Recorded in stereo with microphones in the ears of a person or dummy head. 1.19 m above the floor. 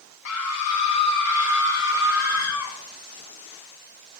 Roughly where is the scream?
Left.